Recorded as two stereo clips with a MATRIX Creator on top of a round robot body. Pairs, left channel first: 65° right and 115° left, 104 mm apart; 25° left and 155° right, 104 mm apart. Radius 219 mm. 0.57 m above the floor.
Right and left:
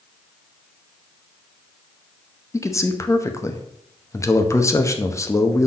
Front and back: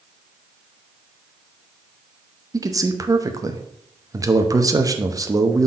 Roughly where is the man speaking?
Behind right.